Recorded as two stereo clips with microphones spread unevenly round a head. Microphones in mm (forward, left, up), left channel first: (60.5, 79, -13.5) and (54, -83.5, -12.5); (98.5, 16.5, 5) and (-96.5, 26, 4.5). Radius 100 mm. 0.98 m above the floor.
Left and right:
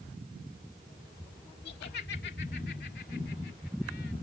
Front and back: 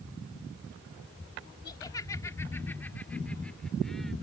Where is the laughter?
65° left; by 4.1 s 85° left.